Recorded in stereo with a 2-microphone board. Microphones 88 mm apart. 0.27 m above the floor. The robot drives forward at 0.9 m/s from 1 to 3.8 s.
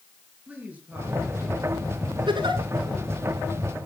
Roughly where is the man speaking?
Centre.